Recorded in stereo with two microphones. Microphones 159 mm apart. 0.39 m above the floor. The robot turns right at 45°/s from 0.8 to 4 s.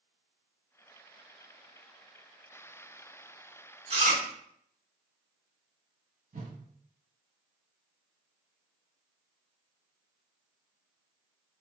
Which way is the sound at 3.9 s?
40° right (ahead or behind).